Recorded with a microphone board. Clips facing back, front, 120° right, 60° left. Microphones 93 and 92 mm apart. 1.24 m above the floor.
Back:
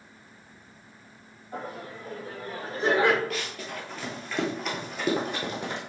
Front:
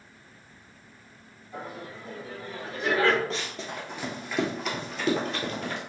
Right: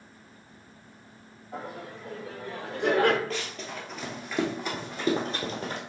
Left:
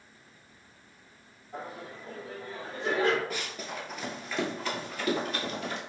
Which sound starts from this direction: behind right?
Laughter, at 1.5 s.